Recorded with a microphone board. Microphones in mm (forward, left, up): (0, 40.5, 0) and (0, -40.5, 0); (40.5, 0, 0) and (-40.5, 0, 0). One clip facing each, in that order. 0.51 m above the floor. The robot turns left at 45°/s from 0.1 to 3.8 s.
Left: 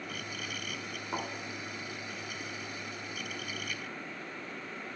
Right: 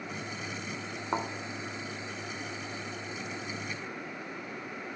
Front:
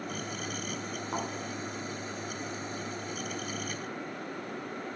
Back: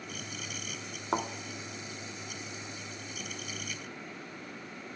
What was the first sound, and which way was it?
A thud, 135° right.